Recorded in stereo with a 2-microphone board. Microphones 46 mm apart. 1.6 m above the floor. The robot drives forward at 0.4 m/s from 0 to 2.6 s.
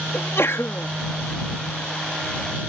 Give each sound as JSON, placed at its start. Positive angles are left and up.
{"t": 0.1, "sound": "a sneeze", "side_deg": 60}